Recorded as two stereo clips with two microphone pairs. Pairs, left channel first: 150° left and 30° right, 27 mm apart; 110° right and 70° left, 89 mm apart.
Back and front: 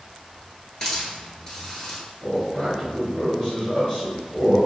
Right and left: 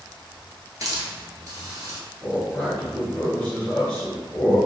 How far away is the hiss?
About 0.9 m.